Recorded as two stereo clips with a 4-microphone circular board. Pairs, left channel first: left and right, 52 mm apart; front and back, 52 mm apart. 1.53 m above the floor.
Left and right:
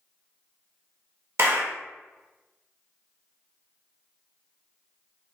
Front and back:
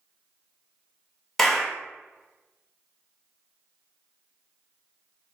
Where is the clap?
80° right, 1.1 m.